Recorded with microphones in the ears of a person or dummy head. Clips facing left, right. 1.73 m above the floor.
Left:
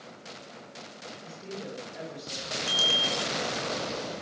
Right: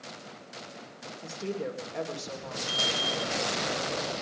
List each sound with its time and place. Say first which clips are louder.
1.2 s a woman speaking: right 7 dB; 65° right (ahead or behind), 3 m
2.7 s a bicycle bell: even; 35° left (ahead or behind), 3.5 m